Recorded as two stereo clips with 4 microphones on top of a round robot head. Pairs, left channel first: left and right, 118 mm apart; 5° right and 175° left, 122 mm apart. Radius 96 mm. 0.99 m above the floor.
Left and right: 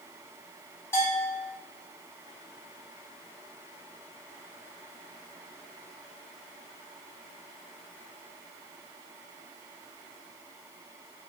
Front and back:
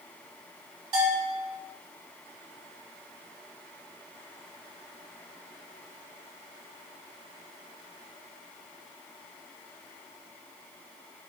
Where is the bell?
150° left, 1.1 m.